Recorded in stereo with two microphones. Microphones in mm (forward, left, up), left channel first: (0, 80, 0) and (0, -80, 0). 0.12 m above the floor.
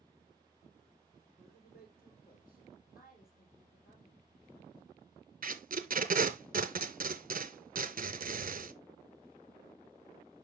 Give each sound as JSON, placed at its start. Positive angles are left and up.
{"t": 1.4, "sound": "a man speaking", "side_deg": 75, "distance_m": 6.0}
{"t": 3.0, "sound": "a woman speaking", "side_deg": 70, "distance_m": 3.5}
{"t": 5.4, "sound": "tape being pulled", "side_deg": -60, "distance_m": 0.6}